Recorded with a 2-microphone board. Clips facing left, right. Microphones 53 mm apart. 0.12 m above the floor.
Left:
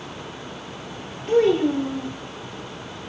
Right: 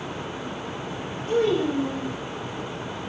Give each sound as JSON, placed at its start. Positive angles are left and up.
{"t": 1.3, "sound": "a child speaking", "side_deg": 50, "distance_m": 2.0}